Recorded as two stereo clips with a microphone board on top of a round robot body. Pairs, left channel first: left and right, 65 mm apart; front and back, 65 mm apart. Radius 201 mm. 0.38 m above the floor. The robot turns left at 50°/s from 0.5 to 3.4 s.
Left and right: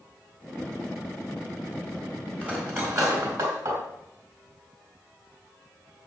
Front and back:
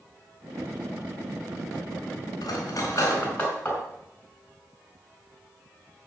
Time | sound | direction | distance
2.4 | cutlery clinking | 15° right | 4 m